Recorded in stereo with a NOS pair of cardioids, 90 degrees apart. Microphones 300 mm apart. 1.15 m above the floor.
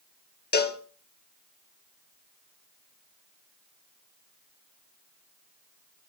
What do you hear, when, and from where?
0.5 s a cowbell: 35° left, 1.5 m